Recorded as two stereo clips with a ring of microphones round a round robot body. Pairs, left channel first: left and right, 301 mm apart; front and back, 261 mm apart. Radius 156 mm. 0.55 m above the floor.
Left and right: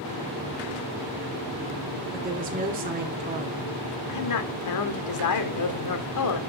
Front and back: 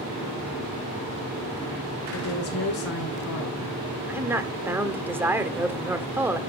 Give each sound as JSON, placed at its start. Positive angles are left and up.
{"t": 2.1, "sound": "a woman speaking", "azimuth_deg": -30, "distance_m": 1.6}
{"t": 4.1, "sound": "a woman speaking", "azimuth_deg": 100, "distance_m": 1.7}